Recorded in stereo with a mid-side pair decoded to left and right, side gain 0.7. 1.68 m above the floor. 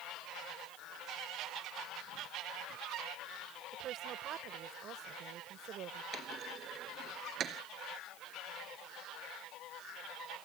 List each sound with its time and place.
3.7 s a woman speaking: 45° right
6.1 s a clunk: 40° right